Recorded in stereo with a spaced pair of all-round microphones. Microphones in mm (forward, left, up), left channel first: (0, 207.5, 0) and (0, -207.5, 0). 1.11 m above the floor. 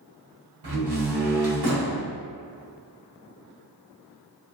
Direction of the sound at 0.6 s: 65° right (ahead or behind).